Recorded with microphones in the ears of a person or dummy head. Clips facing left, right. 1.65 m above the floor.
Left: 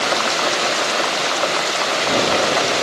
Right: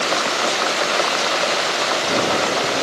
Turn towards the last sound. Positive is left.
No sound to turn to.